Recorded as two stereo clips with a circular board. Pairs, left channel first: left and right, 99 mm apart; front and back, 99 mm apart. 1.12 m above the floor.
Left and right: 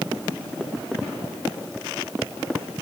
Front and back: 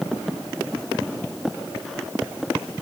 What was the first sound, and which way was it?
Only background noise.